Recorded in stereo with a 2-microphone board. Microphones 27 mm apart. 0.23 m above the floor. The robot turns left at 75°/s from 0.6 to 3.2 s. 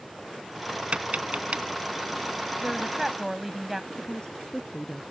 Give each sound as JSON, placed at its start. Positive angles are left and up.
{"t": 0.9, "sound": "tapping", "side_deg": -50}
{"t": 2.6, "sound": "a woman speaking", "side_deg": -25}
{"t": 3.9, "sound": "a woman speaking", "side_deg": 40}